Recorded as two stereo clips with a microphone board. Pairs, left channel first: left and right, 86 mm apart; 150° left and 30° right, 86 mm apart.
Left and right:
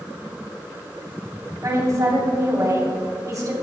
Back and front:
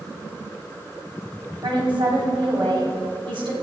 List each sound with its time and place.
1.6 s a woman speaking: 40° right, 3 m